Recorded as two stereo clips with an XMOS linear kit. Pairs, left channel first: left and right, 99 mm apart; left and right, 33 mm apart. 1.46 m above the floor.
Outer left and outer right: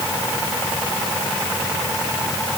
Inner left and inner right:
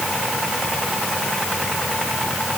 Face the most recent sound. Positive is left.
No sound to turn to.